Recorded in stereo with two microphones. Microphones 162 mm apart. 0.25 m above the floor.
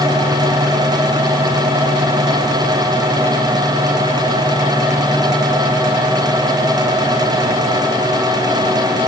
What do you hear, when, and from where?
Only background noise.